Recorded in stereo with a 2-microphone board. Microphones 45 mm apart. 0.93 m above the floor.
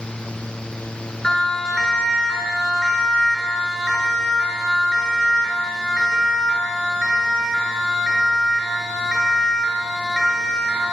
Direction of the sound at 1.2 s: 15° left (ahead or behind).